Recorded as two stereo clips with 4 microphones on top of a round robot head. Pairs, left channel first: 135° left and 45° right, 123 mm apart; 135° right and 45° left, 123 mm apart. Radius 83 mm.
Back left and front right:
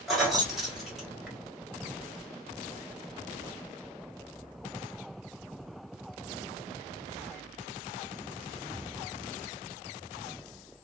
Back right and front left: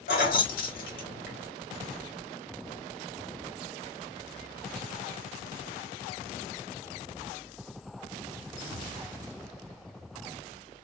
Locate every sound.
0.1 s keys jangling: 135° right, 1.0 m